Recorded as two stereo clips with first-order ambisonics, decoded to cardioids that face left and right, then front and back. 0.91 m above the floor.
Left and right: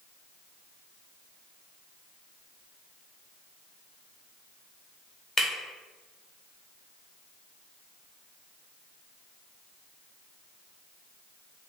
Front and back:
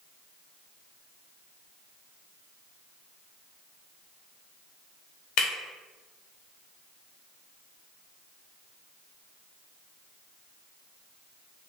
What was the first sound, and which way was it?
Breaking glass, 15° left.